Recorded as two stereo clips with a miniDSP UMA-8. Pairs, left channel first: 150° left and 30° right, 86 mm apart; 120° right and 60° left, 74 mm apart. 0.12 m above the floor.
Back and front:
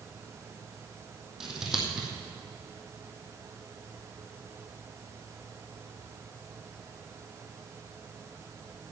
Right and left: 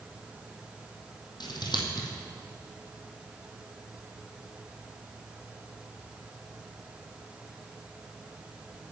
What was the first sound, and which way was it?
Scissors, 115° right.